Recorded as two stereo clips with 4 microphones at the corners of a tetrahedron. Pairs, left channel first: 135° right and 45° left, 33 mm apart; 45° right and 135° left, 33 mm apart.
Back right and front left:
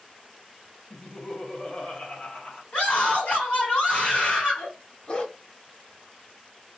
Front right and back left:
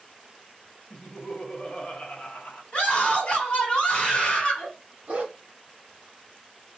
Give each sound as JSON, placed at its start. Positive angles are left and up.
{"t": 0.9, "sound": "laughter", "azimuth_deg": -85, "distance_m": 0.9}
{"t": 2.7, "sound": "a scream", "azimuth_deg": -100, "distance_m": 2.0}
{"t": 5.1, "sound": "a dog barking", "azimuth_deg": 175, "distance_m": 1.2}